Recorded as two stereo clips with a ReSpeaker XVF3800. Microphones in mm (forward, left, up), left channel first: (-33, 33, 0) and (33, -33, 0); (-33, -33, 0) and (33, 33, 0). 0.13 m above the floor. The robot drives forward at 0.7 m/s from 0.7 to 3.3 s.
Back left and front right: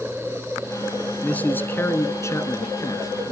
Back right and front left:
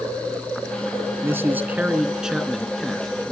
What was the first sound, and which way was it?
A man speaking, 75° left.